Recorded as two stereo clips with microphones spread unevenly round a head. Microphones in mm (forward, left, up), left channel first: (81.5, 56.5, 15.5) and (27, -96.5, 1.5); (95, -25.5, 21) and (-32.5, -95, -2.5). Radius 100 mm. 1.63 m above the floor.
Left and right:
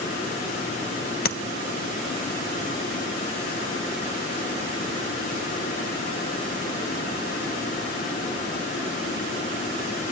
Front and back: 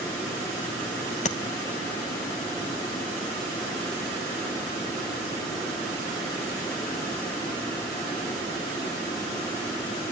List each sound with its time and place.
1.2 s tapping: 70° left, 0.9 m